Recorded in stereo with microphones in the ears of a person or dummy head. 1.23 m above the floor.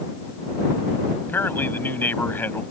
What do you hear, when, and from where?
1.2 s a man speaking: 15° left (ahead or behind)